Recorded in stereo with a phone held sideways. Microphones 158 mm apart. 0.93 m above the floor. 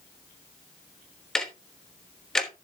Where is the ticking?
5° left (ahead or behind), 1.2 m.